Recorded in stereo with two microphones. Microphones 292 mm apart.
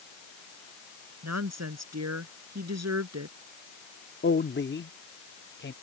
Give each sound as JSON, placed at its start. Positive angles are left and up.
{"t": 1.2, "sound": "a woman speaking", "side_deg": -70}
{"t": 4.2, "sound": "a man speaking", "side_deg": 40}